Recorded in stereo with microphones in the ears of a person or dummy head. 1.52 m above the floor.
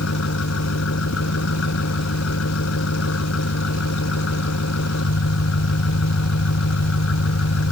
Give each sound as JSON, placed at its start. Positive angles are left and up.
{"t": 0.0, "sound": "an engine running", "side_deg": 80}